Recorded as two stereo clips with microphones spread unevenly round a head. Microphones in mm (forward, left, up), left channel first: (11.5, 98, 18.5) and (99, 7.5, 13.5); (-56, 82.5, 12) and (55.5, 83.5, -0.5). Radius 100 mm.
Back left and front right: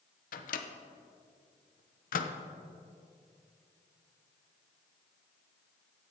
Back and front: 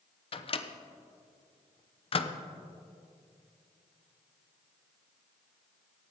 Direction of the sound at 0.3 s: 145° left.